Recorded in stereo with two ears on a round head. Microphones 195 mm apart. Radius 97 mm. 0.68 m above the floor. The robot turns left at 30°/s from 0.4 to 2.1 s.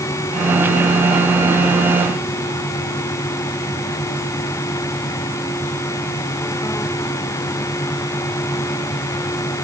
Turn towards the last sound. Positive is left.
No sound to turn to.